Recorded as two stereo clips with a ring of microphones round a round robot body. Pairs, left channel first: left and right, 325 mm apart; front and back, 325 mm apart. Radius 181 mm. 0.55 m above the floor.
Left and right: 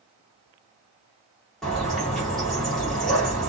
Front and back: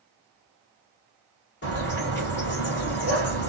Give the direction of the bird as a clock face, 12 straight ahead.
12 o'clock.